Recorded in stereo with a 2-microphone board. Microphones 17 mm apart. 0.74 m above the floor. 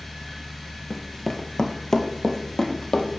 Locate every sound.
0.9 s running footsteps: 10° left (ahead or behind), 0.7 m; by 3.2 s 45° left (ahead or behind), 1.6 m